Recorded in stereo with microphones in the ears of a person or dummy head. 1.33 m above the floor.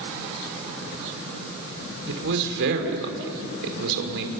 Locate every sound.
2.1 s a man speaking: 75° right (ahead or behind), 3.5 m